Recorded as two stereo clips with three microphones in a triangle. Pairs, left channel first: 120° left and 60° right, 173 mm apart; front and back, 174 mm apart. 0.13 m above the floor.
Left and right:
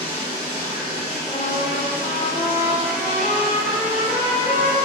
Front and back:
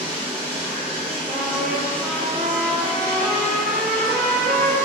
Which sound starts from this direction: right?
Running water, at 0.0 s.